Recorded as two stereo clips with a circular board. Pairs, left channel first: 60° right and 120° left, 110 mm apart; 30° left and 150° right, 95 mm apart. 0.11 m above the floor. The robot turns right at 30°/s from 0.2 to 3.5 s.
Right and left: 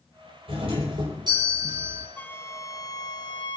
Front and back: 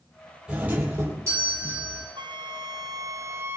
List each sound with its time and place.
0.5 s a doorbell: 130° left, 4.5 m; by 2.1 s straight behind, 4.5 m
2.2 s a flute: 130° right, 0.6 m; by 3.6 s 90° right, 0.6 m